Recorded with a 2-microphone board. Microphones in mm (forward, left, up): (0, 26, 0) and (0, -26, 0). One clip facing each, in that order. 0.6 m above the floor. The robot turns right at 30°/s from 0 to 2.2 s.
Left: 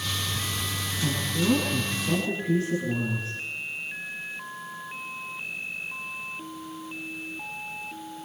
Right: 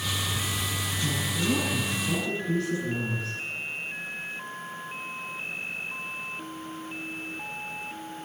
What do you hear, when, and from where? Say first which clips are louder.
1.0 s a woman speaking: left 3 dB; 125° left, 7.5 m; by 3.4 s 160° left, 7.5 m